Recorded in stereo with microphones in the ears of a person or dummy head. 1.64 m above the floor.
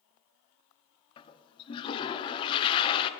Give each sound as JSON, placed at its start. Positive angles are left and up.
{"t": 1.2, "sound": "a toilet flushing", "side_deg": 25, "distance_m": 0.7}